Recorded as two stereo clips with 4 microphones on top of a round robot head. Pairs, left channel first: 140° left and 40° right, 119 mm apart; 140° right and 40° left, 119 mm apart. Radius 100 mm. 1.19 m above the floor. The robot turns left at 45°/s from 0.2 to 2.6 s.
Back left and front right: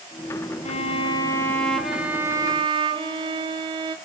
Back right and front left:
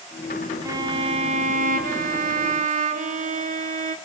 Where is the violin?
105° left, 0.8 m; by 4.0 s 15° left, 0.8 m.